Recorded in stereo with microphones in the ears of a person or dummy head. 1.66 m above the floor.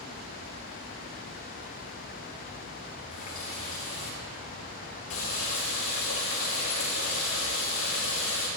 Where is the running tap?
75° left (ahead or behind), 2.5 m.